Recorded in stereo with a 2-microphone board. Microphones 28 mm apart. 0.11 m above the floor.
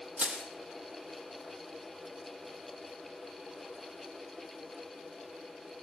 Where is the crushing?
60° right (ahead or behind), 3.5 m.